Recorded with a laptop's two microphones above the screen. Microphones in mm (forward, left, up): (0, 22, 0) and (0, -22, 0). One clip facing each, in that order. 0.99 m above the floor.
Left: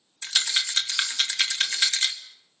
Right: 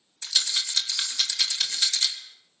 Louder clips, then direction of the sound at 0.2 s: Left 3 dB; 40° left (ahead or behind).